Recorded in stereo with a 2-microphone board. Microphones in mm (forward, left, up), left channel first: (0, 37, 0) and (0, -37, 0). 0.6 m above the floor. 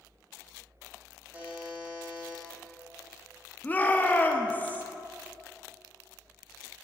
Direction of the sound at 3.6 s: 25° left (ahead or behind).